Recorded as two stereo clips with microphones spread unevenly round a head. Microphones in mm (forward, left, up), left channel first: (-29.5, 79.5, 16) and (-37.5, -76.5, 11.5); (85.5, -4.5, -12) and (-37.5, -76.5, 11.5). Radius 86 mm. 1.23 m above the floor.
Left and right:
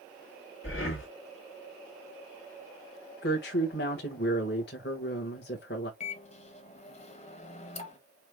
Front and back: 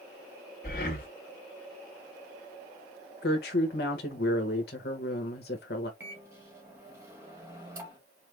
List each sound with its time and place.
0.6 s breathing: 75° left, 1.6 m
3.2 s a woman speaking: 55° left, 1.3 m
6.0 s a microwave: 135° left, 1.2 m